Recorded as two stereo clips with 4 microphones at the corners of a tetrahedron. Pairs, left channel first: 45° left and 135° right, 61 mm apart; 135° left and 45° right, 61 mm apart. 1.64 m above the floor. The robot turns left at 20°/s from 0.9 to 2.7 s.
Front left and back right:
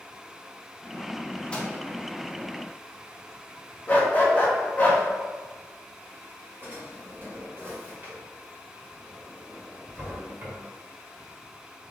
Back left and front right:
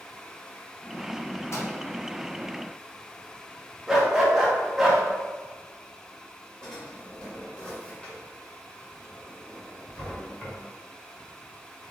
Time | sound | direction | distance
1.5 | a microwave | 115° left | 1.0 m
3.9 | a dog barking | 30° left | 1.1 m
6.6 | a drawer | 160° right | 1.6 m